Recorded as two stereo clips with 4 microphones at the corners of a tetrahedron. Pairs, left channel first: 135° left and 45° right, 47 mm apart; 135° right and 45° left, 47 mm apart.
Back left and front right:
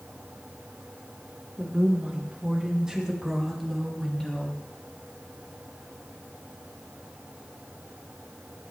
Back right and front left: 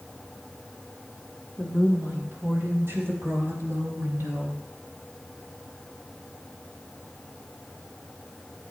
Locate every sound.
1.6 s a woman speaking: 10° left, 4.5 m; by 4.6 s 70° left, 2.5 m